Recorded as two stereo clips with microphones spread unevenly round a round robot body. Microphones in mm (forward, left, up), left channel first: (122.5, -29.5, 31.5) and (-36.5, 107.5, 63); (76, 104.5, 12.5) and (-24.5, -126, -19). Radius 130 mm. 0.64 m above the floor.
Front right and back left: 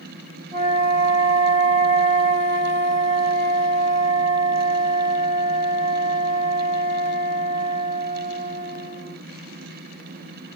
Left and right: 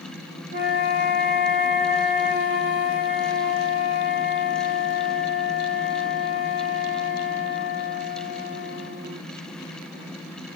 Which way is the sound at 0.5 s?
155° right.